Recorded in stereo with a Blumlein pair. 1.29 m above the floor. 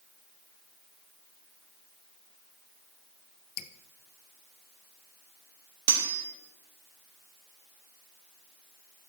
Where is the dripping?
40° left, 0.7 m.